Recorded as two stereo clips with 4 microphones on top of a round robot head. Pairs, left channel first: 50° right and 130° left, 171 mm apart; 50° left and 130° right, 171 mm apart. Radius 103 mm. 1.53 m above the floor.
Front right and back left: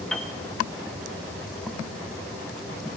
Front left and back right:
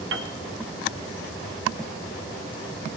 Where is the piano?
135° right, 0.7 m.